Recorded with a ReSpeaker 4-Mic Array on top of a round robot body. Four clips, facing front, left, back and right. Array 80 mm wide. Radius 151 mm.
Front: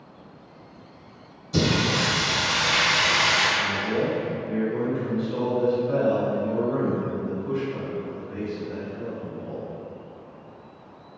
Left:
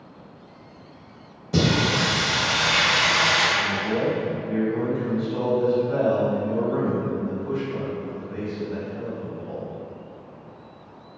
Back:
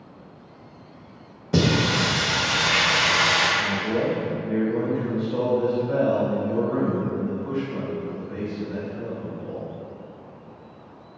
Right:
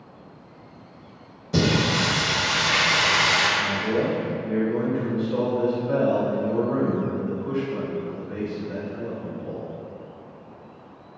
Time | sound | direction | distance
1.5 | singing | 175° left | 1.0 m
3.6 | a man speaking | 90° right | 1.6 m